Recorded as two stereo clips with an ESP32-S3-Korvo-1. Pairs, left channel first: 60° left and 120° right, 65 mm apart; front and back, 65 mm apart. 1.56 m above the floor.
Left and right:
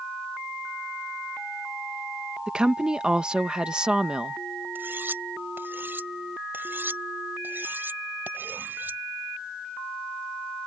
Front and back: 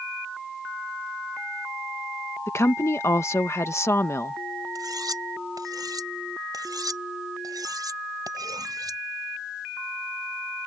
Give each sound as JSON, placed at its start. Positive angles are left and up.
{"t": 2.5, "sound": "a woman speaking", "azimuth_deg": -45}
{"t": 4.8, "sound": "cutlery clinking", "azimuth_deg": 180}